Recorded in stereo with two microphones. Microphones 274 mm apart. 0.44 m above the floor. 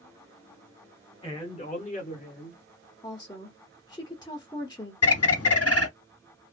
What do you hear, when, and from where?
1.2 s a man speaking: 20° left (ahead or behind), 1.4 m; by 2.6 s 35° left (ahead or behind), 1.8 m
3.0 s a woman speaking: 15° left (ahead or behind), 0.8 m
5.0 s a bird: 60° left (ahead or behind), 0.6 m